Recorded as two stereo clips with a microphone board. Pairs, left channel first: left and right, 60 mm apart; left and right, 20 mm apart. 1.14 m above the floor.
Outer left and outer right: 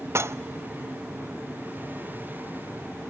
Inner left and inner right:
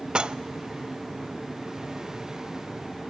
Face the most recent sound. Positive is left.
turn(degrees=-45)  # may be behind; listen again after turning